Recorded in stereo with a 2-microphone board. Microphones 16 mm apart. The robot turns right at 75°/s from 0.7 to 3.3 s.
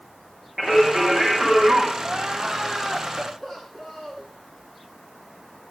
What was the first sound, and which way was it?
Singing, 165° left.